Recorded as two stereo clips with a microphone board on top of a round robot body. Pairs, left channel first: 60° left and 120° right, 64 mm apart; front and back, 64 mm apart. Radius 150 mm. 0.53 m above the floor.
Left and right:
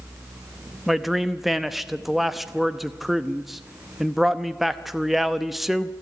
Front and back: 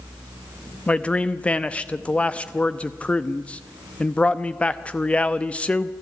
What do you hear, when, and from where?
0.9 s a man speaking: 35° right, 1.0 m